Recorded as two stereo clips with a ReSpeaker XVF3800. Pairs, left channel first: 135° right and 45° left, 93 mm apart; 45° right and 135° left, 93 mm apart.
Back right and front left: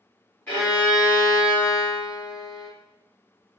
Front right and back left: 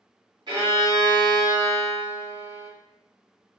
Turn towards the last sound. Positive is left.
turn(degrees=160)